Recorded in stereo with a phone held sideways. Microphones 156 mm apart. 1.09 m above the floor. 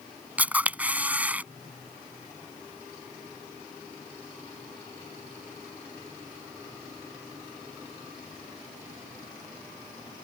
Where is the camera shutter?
10° right (ahead or behind).